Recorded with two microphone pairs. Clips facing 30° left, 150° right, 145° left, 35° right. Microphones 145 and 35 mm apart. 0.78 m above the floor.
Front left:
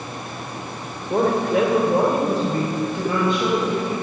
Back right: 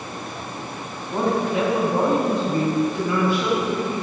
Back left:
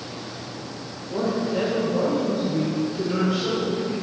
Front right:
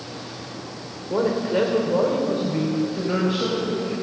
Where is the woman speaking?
10° left, 3 m; by 3.9 s 40° right, 5.5 m.